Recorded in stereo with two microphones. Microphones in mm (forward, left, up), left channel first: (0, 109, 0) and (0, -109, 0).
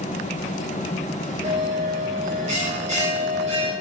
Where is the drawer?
No drawer in this recording.